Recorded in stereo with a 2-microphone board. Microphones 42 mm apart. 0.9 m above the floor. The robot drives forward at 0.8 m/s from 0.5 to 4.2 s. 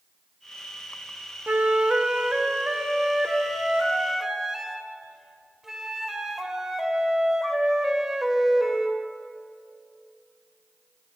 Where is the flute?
40° right (ahead or behind), 0.7 m; by 9.0 s 10° right (ahead or behind), 3 m.